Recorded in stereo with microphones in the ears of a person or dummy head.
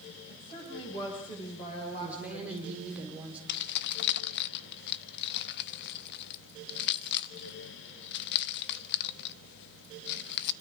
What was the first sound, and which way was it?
A woman speaking, 25° left (ahead or behind).